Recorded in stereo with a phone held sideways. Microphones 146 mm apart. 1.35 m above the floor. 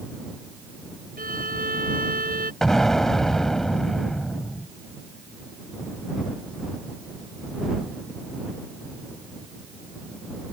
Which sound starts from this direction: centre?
An explosion, at 2.6 s.